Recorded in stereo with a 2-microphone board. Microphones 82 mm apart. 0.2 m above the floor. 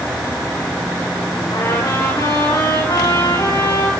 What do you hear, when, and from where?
1.5 s a trumpet: 70° left (ahead or behind), 5 m